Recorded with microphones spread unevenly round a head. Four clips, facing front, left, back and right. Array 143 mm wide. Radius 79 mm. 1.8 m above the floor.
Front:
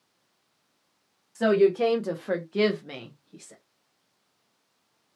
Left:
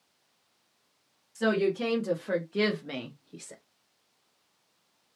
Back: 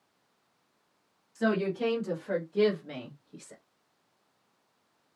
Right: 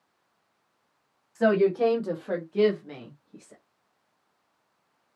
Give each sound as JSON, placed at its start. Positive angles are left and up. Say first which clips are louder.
{"t": 1.4, "sound": "a woman speaking", "louder": "right 5 dB, front 8 dB", "azimuth_deg": -45, "distance_m": 1.2}